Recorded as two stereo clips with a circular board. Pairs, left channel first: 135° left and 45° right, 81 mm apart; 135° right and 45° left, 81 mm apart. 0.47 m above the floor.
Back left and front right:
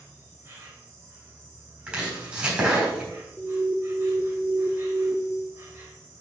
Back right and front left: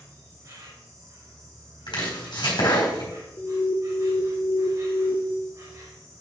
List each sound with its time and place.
0.0 s an insect: 5° left, 3.5 m
1.9 s chopping: 120° right, 3.5 m
3.4 s an alarm: 125° right, 0.7 m